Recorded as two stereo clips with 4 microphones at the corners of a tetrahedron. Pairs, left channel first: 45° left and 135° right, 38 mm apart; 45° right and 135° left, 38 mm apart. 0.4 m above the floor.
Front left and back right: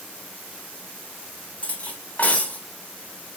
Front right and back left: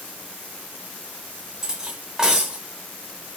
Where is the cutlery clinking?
65° left, 0.8 m.